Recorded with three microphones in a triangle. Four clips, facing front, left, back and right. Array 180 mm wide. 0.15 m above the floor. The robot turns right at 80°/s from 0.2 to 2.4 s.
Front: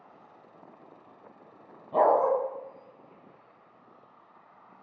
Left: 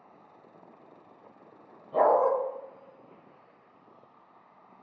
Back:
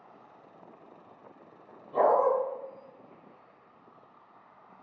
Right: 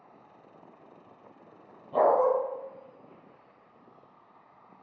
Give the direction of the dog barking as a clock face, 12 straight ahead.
1 o'clock.